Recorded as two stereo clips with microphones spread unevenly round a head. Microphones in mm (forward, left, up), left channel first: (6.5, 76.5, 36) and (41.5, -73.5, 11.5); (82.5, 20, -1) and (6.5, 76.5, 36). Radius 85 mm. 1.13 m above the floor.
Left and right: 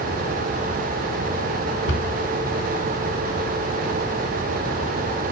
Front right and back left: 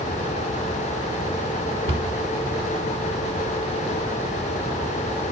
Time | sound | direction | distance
1.9 | a cupboard door | 120° left | 3.5 m